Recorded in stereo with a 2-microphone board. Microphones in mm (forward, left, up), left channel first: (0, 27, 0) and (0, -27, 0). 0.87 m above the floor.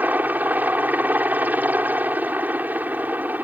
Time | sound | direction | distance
0.0 | a helicopter | 35° right (ahead or behind) | ?